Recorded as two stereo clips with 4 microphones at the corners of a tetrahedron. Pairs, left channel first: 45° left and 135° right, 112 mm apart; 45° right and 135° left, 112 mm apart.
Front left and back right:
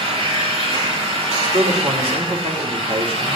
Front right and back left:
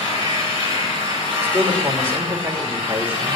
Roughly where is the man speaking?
Behind right.